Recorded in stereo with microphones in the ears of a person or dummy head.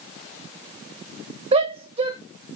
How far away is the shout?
About 2.5 m.